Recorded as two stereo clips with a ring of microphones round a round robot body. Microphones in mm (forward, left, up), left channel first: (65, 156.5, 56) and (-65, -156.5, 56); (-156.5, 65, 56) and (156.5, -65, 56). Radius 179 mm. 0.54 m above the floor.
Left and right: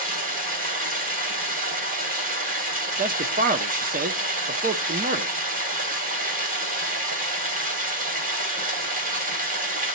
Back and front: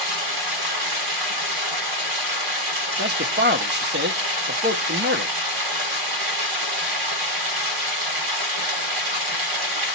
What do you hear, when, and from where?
0.0 s running water: 45° right, 2.5 m
3.0 s a man speaking: 65° right, 0.9 m